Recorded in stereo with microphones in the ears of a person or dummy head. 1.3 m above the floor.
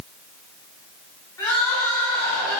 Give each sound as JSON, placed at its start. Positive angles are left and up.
{"t": 1.4, "sound": "crying", "side_deg": 15, "distance_m": 3.0}